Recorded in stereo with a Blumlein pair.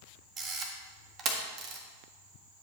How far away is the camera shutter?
About 1.6 m.